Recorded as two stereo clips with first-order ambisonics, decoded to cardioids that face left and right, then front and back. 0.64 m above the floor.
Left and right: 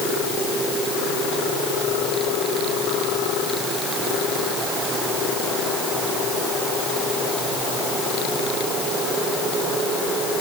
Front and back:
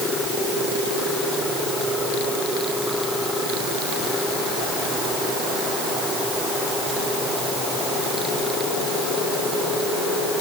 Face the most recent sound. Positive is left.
No sound to turn to.